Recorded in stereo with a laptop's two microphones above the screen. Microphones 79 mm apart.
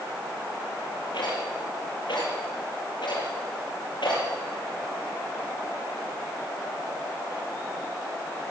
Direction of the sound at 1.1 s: 75° left (ahead or behind).